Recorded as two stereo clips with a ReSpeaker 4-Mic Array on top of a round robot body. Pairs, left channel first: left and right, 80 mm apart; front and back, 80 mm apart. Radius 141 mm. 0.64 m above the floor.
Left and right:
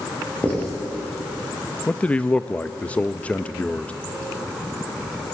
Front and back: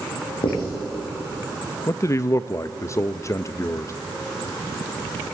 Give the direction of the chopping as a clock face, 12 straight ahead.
I don't hear chopping.